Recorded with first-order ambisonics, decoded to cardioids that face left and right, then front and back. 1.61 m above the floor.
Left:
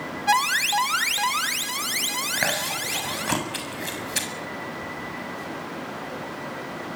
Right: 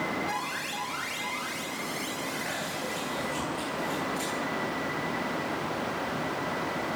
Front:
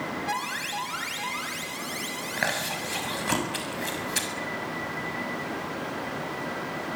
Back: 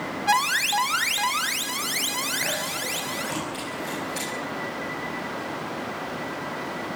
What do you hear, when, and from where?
0.3 s an alarm: 125° left, 2 m
2.4 s chewing: 65° left, 7 m